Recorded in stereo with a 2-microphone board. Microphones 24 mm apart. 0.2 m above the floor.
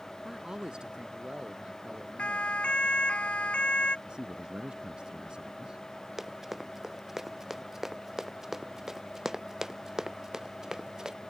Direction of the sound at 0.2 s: 25° right (ahead or behind).